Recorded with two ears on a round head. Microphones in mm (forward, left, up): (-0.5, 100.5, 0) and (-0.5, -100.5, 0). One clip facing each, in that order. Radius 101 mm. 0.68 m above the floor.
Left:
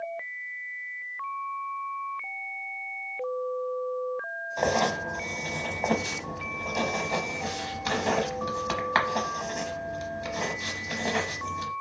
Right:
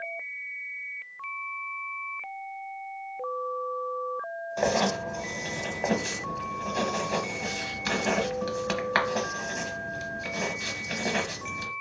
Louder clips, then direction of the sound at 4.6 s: Even; 10° right (ahead or behind).